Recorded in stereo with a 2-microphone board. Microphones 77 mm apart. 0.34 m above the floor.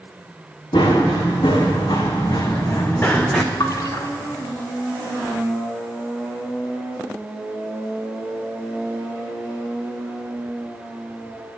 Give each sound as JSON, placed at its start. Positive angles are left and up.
{"t": 0.7, "sound": "running footsteps", "side_deg": 85, "distance_m": 2.5}
{"t": 3.6, "sound": "a splash", "side_deg": 50, "distance_m": 1.0}